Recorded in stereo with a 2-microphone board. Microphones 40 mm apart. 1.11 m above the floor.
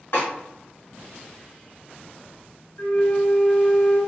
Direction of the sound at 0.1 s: 70° left (ahead or behind).